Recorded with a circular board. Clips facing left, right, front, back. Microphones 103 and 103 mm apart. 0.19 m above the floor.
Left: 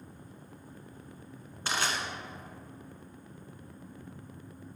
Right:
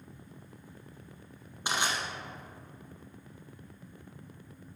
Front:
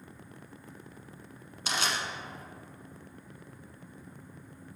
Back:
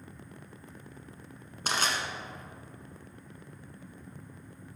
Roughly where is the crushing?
Behind.